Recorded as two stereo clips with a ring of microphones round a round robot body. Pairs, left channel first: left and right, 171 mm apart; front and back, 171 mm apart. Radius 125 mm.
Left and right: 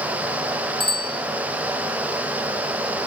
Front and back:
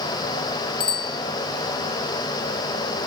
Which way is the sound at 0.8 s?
25° left.